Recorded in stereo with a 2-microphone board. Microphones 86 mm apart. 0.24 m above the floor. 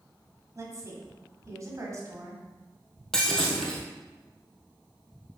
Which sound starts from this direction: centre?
Breaking glass, at 3.1 s.